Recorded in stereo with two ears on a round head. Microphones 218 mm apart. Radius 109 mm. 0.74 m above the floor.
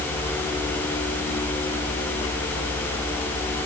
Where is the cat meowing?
No cat meowing in this recording.